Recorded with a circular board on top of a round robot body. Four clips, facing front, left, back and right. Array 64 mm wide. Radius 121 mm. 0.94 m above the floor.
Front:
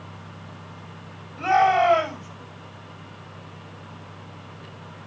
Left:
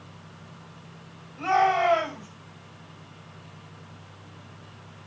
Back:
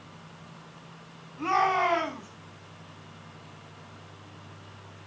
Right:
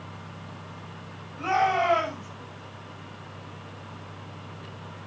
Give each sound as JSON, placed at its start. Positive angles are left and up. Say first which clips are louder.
{"t": 1.4, "sound": "a shout", "louder": "left 2 dB, front 6 dB", "azimuth_deg": 10, "distance_m": 8.5}